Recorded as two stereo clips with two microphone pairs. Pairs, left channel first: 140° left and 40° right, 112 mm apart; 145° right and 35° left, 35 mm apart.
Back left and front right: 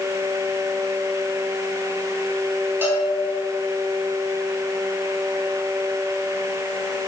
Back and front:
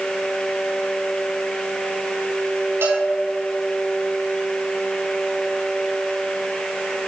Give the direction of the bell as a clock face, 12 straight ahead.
11 o'clock.